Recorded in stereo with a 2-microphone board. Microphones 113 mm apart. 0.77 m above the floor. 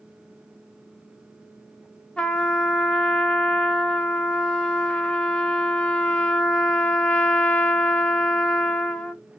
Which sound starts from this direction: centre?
A trumpet, at 2.2 s.